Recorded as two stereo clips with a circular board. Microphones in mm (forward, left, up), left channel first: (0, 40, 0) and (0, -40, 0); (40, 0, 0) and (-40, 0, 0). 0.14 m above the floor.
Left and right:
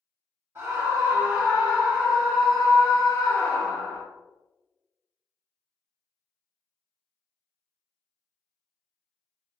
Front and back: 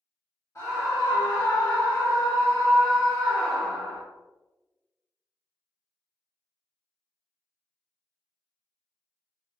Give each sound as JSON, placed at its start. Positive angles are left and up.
{"t": 0.6, "sound": "a scream", "azimuth_deg": -45, "distance_m": 2.0}